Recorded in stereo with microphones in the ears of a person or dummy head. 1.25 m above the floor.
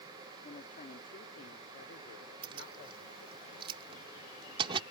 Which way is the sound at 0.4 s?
40° left (ahead or behind).